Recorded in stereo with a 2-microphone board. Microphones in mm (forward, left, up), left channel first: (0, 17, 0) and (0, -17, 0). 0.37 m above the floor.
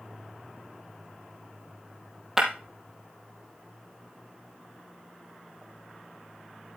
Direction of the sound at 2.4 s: 10° right (ahead or behind).